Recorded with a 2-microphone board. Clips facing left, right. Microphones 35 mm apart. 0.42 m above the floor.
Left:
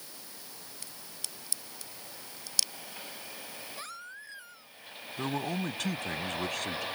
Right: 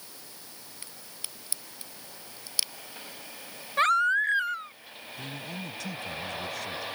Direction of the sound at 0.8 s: 20° right (ahead or behind).